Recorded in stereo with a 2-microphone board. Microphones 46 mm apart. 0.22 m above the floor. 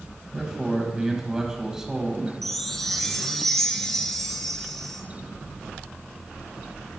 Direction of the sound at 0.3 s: 15° right (ahead or behind).